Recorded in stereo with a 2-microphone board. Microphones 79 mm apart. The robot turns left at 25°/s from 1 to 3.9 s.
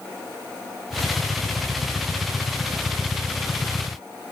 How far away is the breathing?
No breathing in this recording.